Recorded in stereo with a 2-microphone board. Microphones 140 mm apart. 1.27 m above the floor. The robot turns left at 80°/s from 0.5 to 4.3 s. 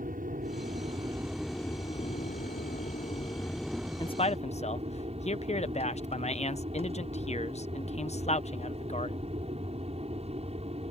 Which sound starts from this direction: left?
A man speaking, at 4.0 s.